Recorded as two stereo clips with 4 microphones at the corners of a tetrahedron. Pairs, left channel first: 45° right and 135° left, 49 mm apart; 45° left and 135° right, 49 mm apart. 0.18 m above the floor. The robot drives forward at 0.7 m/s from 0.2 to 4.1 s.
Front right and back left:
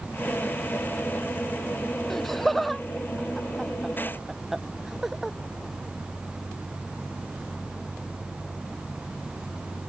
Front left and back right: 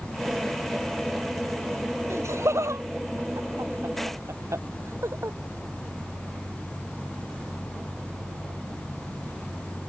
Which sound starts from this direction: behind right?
Laughter, at 2.1 s.